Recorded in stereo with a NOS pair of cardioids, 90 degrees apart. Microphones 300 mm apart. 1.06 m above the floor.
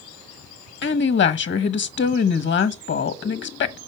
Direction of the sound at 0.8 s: 40° left.